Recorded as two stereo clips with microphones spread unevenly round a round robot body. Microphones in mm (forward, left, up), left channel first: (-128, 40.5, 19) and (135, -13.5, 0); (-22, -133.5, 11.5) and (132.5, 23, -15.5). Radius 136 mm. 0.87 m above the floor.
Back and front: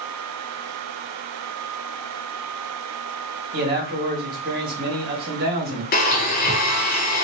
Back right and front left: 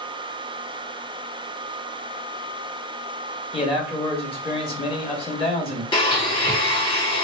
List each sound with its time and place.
3.5 s a man speaking: 65° right, 1.7 m
5.9 s a blender: 160° left, 0.9 m